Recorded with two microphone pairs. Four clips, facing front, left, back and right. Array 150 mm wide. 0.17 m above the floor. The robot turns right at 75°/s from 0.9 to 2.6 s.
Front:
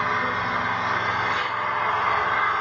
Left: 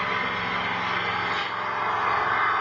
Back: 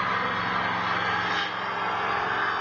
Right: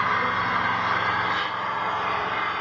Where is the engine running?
70° right, 0.9 m; by 2.6 s 60° left, 0.9 m.